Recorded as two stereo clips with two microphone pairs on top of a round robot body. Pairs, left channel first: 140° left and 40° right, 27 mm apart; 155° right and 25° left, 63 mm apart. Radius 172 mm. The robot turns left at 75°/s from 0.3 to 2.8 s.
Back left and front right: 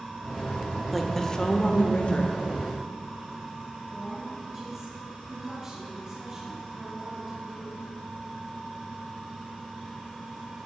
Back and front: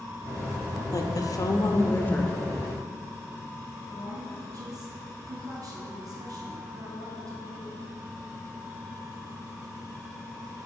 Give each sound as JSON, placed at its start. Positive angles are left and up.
{"t": 0.9, "sound": "a woman speaking", "azimuth_deg": -135, "distance_m": 2.0}
{"t": 3.9, "sound": "a woman speaking", "azimuth_deg": 20, "distance_m": 4.0}